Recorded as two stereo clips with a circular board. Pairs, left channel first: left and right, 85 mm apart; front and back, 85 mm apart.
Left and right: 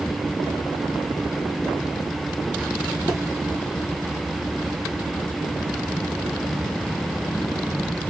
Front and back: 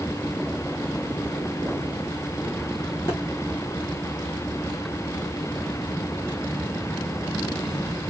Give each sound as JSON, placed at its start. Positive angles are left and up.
{"t": 3.1, "sound": "a thud", "azimuth_deg": -55, "distance_m": 3.5}